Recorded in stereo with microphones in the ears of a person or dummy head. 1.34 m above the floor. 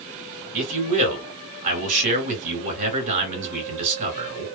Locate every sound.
0.5 s a man speaking: 40° right (ahead or behind), 2 m